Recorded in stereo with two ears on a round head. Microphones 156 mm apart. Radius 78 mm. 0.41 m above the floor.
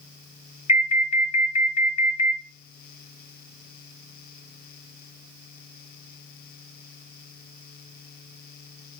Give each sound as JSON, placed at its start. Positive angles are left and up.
{"t": 0.7, "sound": "an alarm", "side_deg": 35, "distance_m": 1.2}